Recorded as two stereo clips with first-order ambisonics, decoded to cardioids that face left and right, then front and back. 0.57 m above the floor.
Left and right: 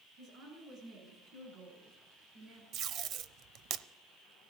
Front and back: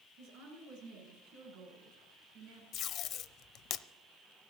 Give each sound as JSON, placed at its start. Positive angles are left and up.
{"t": 0.2, "sound": "a woman speaking", "azimuth_deg": -140, "distance_m": 7.5}
{"t": 2.7, "sound": "tape being pulled", "azimuth_deg": -45, "distance_m": 0.5}